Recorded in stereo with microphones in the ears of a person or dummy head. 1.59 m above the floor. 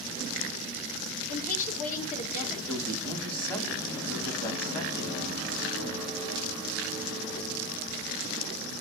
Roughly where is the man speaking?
Centre.